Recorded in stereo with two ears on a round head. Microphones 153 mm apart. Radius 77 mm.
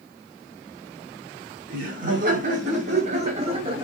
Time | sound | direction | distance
1.7 | laughter | 55° right (ahead or behind) | 5 m